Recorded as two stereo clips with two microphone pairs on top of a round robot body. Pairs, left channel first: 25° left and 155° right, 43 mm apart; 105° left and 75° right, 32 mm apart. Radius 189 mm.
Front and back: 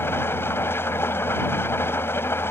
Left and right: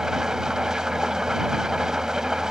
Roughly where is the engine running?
Ahead.